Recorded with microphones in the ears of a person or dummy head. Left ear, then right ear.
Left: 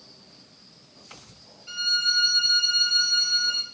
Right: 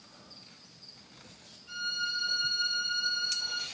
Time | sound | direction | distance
1.7 | a violin | 70° left (ahead or behind) | 0.5 m